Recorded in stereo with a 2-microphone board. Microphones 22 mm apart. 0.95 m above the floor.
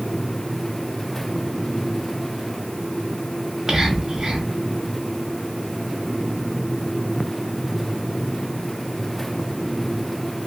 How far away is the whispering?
About 0.7 m.